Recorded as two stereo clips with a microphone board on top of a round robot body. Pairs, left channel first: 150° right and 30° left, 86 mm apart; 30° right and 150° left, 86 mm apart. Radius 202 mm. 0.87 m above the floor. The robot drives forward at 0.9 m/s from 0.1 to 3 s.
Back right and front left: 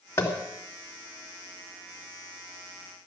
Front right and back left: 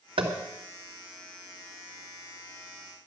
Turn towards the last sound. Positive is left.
turn(degrees=165)